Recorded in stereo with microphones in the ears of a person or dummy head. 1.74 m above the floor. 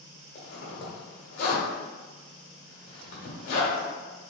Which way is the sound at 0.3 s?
50° left (ahead or behind).